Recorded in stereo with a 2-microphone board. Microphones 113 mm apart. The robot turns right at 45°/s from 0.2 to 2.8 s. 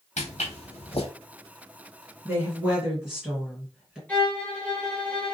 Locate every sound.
0.2 s footsteps: 85° left, 1.0 m; by 1.1 s 55° left (ahead or behind), 1.0 m
2.2 s a woman speaking: 25° right (ahead or behind), 2.0 m; by 4.0 s 5° right (ahead or behind), 2.0 m
4.1 s a violin: 15° left (ahead or behind), 1.2 m